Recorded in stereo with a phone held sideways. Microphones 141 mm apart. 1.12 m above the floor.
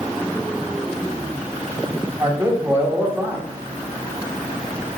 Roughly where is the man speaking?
Centre.